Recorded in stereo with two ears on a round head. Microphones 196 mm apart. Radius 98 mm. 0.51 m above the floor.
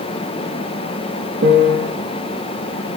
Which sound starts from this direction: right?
A piano, at 1.4 s.